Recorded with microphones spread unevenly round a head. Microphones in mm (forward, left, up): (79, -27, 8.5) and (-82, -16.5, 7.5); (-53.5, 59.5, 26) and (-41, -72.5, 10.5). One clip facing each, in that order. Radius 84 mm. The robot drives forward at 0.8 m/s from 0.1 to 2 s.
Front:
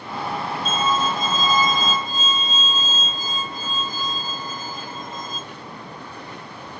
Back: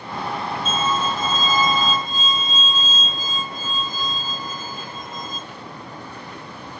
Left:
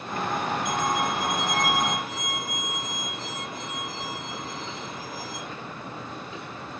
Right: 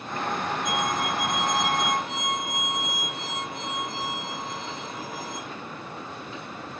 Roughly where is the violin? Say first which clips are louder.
Front 1 dB, even; ahead.